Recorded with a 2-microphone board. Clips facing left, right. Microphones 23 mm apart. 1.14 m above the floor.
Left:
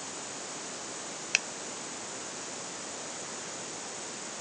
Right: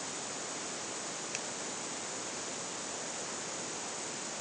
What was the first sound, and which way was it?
A finger snap, 55° left (ahead or behind).